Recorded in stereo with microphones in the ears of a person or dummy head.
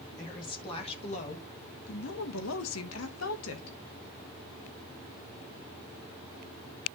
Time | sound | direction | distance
0.2 | a woman speaking | 20° left (ahead or behind) | 2 m